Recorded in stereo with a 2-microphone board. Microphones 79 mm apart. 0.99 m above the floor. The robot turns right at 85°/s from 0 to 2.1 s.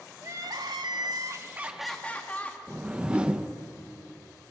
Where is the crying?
140° right, 1.7 m; by 2.6 s 20° left, 1.7 m.